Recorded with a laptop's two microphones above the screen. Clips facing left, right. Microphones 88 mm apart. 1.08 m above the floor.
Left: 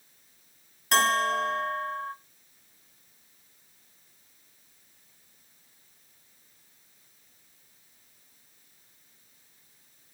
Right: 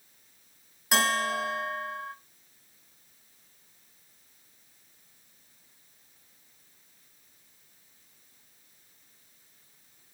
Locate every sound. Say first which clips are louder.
0.9 s a bell: left 3 dB; 5° right (ahead or behind), 0.8 m